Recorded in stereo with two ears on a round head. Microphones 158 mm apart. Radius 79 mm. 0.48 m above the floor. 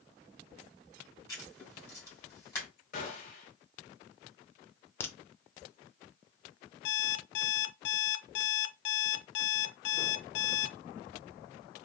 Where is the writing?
15° left (ahead or behind), 2.5 m.